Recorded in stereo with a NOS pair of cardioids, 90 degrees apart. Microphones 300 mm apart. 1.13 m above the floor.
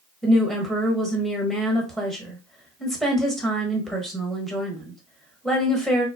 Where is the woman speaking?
Straight ahead, 1.2 m.